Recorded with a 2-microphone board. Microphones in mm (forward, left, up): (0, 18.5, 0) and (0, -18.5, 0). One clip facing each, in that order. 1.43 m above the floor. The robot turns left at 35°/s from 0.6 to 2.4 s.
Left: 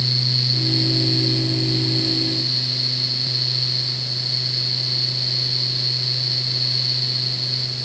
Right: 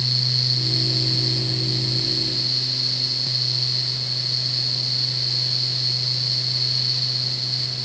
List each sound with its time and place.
Only background noise.